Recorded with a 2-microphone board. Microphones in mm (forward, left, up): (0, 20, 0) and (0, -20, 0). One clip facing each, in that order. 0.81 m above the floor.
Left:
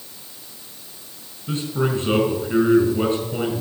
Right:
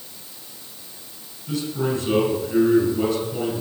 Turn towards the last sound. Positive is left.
turn(degrees=45)  # may be behind; listen again after turning